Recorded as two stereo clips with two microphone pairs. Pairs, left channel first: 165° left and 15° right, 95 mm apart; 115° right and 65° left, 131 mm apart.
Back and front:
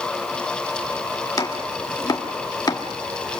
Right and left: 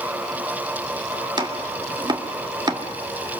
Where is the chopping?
120° left, 1.8 m.